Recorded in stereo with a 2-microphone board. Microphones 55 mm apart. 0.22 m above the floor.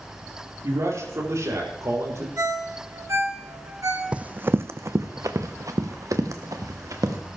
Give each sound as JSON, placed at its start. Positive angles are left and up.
{"t": 0.6, "sound": "a man speaking", "side_deg": -65, "distance_m": 4.5}
{"t": 2.4, "sound": "a ringtone", "side_deg": -70, "distance_m": 2.5}
{"t": 4.1, "sound": "running footsteps", "side_deg": -20, "distance_m": 0.5}